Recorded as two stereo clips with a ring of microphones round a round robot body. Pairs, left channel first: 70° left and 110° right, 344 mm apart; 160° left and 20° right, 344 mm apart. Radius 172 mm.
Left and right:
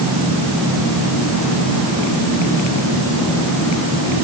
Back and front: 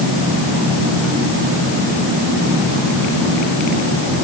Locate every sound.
Only background noise.